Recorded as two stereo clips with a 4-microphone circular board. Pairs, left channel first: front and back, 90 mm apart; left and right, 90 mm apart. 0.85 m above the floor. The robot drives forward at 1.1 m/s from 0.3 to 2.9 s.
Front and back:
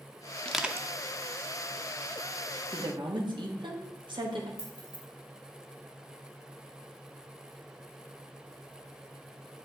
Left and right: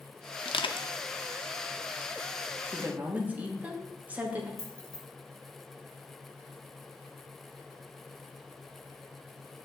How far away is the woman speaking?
About 1.0 m.